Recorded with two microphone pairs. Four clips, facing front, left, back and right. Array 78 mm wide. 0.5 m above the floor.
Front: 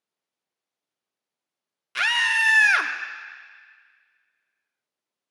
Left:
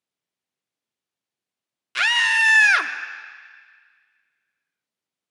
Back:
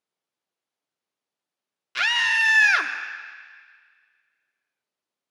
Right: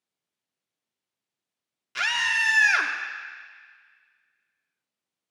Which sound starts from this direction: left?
A scream, at 1.9 s.